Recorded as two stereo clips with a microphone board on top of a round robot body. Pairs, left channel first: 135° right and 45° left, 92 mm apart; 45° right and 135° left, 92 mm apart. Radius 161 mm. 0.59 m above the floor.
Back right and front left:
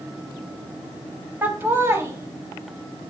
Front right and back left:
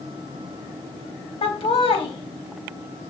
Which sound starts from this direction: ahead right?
Laughter, at 1.4 s.